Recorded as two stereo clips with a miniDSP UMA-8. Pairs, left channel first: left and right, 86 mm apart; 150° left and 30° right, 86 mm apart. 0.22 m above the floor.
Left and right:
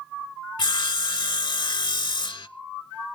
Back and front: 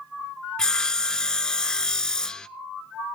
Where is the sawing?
70° left, 0.5 m.